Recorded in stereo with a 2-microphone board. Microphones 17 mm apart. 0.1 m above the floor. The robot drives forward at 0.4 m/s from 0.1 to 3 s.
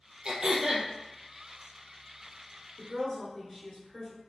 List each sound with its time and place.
0.2 s throat clearing: 50° right (ahead or behind), 0.6 m; by 0.9 s 35° right (ahead or behind), 0.7 m
2.8 s a woman speaking: centre (ahead or behind), 1.1 m